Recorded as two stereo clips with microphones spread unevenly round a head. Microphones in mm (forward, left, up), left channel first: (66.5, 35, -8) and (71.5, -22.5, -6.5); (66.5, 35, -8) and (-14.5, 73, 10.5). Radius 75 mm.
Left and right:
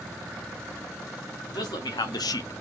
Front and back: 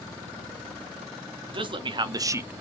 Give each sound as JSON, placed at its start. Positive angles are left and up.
{"t": 1.5, "sound": "a man speaking", "azimuth_deg": 120, "distance_m": 1.0}